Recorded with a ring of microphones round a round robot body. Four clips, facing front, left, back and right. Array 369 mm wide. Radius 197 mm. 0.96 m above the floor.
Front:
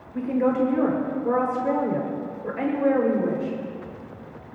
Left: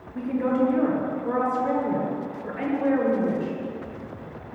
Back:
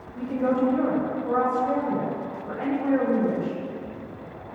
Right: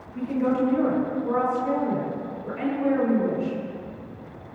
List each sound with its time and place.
0.1 s a woman speaking: 10° left, 5 m